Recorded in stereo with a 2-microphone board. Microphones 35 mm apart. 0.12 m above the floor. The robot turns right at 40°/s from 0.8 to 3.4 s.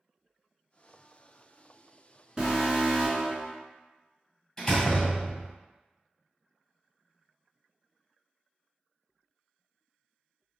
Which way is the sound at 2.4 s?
20° right (ahead or behind).